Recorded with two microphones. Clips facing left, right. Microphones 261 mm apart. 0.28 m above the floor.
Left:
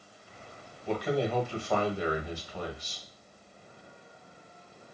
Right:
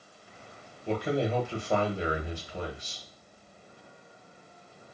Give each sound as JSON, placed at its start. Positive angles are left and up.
{"t": 0.9, "sound": "a man speaking", "side_deg": -25, "distance_m": 1.0}